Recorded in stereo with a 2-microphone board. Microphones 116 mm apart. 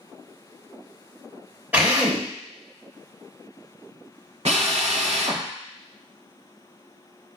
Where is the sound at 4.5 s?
65° right (ahead or behind), 0.7 m.